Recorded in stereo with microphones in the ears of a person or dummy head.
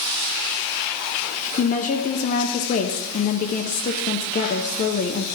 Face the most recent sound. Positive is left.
turn(degrees=45)  # may be behind; listen again after turning